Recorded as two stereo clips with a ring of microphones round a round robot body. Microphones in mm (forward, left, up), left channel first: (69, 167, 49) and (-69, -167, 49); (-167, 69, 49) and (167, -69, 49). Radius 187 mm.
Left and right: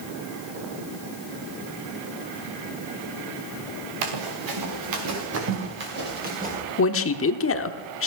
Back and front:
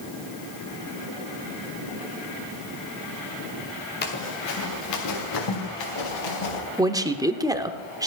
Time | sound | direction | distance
4.0 | running footsteps | 140° right | 3.5 m
6.8 | a man speaking | 50° left | 1.1 m